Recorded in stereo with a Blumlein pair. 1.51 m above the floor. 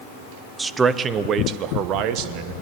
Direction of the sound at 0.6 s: 10° right.